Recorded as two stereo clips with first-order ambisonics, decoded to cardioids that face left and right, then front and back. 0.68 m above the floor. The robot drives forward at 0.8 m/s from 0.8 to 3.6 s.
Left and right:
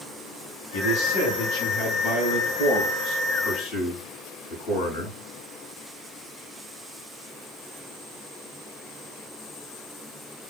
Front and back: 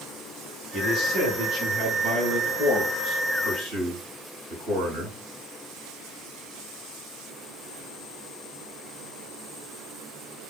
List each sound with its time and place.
0.7 s a man speaking: 105° left, 5 m; by 5.2 s 125° left, 6 m